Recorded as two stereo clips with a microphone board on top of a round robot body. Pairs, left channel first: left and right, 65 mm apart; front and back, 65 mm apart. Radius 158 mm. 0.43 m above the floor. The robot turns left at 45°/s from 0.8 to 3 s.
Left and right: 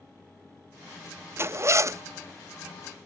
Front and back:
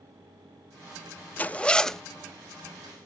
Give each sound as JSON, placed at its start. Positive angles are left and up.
{"t": 1.4, "sound": "a zipper", "azimuth_deg": -55, "distance_m": 0.8}